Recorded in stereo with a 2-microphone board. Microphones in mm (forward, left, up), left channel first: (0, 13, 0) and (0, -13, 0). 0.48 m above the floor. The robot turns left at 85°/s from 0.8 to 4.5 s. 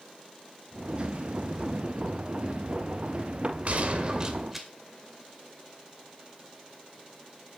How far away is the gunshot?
About 2 m.